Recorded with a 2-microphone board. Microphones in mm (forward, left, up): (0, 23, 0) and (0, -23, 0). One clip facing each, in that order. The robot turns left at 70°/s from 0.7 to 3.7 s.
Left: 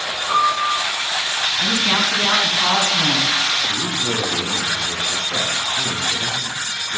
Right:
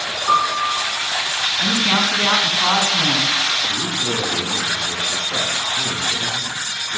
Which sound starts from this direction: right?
A piano, at 0.3 s.